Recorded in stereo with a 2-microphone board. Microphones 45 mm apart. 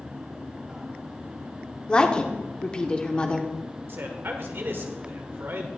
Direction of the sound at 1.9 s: 20° left (ahead or behind).